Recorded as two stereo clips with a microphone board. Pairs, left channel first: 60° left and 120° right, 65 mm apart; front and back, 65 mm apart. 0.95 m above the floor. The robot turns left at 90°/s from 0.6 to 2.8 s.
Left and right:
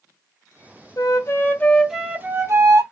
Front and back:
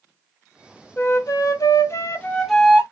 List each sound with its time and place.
1.0 s a flute: 50° left, 1.1 m; by 2.8 s 115° right, 1.1 m